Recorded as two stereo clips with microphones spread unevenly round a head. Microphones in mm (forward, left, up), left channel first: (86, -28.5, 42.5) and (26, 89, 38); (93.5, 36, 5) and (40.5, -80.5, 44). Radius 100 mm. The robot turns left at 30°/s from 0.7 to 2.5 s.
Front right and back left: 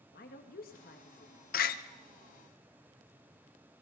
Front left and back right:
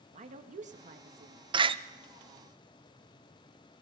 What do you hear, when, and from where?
0.1 s a woman speaking: 90° right, 1.6 m; by 1.4 s 110° right, 1.6 m
1.5 s a door slam: 60° right, 0.6 m; by 1.8 s 70° right, 0.6 m